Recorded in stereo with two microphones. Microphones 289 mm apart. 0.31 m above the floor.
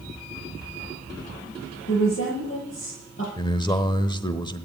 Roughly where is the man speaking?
Centre.